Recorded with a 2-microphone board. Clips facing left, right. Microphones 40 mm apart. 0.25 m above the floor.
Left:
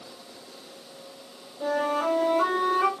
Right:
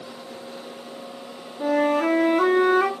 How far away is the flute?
About 0.8 m.